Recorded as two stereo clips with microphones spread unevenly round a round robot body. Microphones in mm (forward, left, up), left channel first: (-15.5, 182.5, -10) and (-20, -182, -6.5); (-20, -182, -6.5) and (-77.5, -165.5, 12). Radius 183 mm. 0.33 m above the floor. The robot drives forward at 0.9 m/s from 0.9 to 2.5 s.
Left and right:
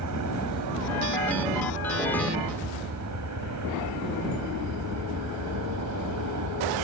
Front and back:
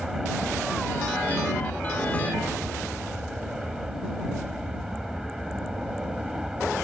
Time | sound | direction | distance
0.0 | an aircraft | 110° right | ?